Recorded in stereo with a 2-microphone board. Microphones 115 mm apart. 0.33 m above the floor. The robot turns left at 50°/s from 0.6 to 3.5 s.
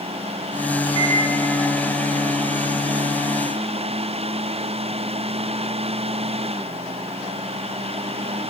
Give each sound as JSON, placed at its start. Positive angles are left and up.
{"t": 0.9, "sound": "a microwave", "side_deg": 35, "distance_m": 1.3}